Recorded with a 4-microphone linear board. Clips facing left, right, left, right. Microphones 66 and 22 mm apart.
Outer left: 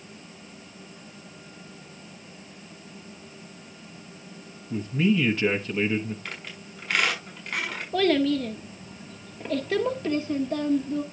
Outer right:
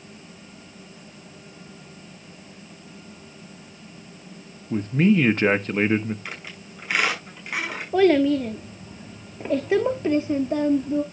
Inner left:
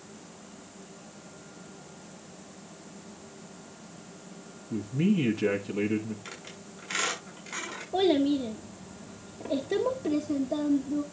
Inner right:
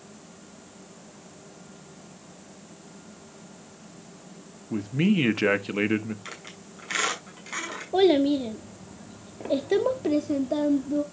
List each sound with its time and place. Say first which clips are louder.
4.7 s a man speaking: outer right 4 dB, inner right 3 dB; 50° right (ahead or behind), 1.2 m
6.2 s a squeak: outer right 1 dB, inner right 2 dB; 10° right (ahead or behind), 6.5 m
7.9 s a child speaking: outer right 5 dB, inner right 4 dB; 20° right (ahead or behind), 1.1 m